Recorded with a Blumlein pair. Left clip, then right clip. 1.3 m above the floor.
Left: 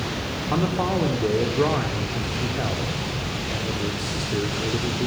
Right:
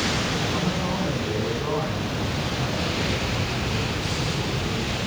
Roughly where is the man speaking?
Ahead left.